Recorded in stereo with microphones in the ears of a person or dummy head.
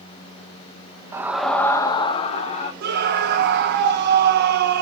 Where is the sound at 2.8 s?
60° right (ahead or behind), 1.5 m.